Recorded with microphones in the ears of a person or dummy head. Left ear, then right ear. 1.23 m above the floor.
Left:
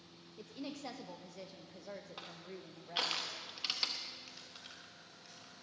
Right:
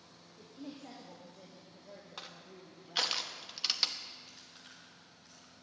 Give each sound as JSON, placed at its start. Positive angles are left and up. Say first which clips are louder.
{"t": 0.4, "sound": "a woman speaking", "louder": "left 3 dB", "side_deg": 90, "distance_m": 1.0}
{"t": 2.2, "sound": "crushing", "louder": "even", "side_deg": -15, "distance_m": 0.9}
{"t": 4.3, "sound": "chewing", "louder": "left 2 dB", "side_deg": 10, "distance_m": 2.5}